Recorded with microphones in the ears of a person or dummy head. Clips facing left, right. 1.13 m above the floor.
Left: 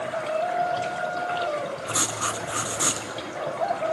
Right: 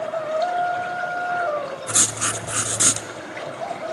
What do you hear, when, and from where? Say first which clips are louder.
1.9 s writing: even; 25° right (ahead or behind), 0.5 m